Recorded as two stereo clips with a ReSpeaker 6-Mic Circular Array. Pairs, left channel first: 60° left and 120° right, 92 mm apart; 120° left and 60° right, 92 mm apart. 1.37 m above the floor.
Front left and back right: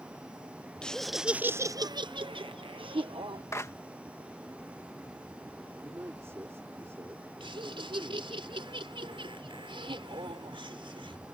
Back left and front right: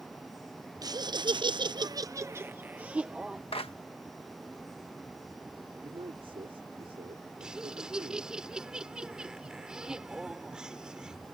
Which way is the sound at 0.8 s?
20° right.